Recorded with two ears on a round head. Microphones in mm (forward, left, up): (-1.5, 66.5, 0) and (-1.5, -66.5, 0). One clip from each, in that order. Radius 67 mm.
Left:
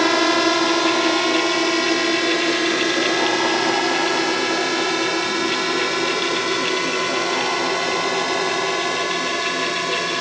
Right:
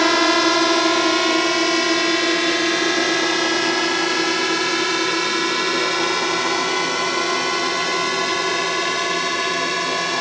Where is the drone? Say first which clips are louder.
Right 1 dB; 10° right (ahead or behind).